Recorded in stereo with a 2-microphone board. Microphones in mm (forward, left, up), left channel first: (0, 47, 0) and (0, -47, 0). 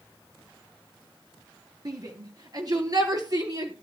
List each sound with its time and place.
1.9 s a shout: 45° right (ahead or behind), 3 m; by 3.7 s 40° right (ahead or behind), 4.5 m